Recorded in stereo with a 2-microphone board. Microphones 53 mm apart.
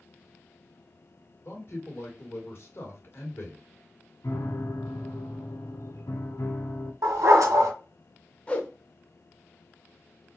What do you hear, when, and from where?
1.4 s a man speaking: 45° left (ahead or behind), 2.0 m
4.2 s a piano: 70° left (ahead or behind), 0.9 m
7.0 s a dog barking: 85° right, 2 m
8.5 s a whoosh: 20° left (ahead or behind), 0.8 m